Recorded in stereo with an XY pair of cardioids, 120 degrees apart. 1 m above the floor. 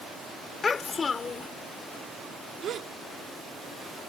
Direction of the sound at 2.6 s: 55° right.